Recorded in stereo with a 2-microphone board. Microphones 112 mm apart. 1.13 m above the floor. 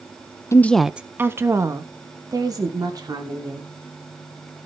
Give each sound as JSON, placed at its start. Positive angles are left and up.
{"t": 0.5, "sound": "a woman speaking", "side_deg": 25, "distance_m": 0.6}